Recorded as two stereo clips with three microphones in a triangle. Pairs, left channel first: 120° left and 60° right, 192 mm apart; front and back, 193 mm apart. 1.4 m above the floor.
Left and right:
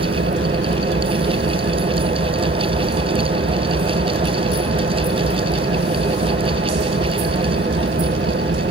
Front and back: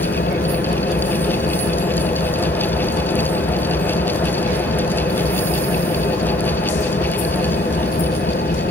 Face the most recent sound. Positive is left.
turn(degrees=-35)